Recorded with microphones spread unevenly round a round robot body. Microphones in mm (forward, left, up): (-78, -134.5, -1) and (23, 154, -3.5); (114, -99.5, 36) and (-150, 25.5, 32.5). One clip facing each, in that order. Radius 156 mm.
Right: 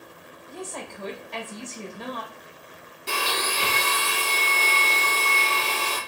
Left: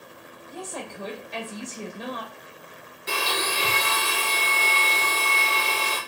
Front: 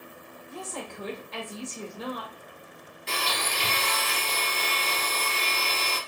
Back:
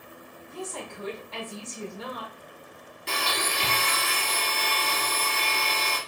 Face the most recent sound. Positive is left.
turn(degrees=-165)